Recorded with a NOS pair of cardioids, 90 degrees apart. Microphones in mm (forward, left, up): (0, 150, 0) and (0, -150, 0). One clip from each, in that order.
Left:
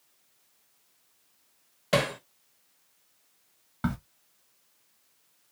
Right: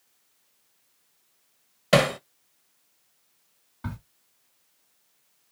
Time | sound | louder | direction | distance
1.9 | hammering | right 6 dB | 30° right | 0.6 m
3.8 | a crack | left 7 dB | 65° left | 1.9 m